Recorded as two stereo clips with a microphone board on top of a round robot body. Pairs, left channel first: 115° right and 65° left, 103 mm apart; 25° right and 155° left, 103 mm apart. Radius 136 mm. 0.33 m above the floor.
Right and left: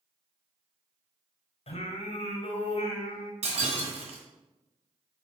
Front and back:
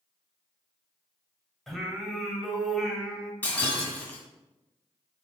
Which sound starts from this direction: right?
Singing, at 1.7 s.